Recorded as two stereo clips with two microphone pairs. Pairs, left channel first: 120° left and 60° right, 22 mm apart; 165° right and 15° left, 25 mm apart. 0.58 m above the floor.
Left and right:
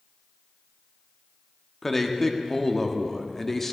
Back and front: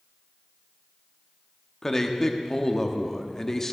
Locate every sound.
1.8 s a man speaking: 160° left, 0.7 m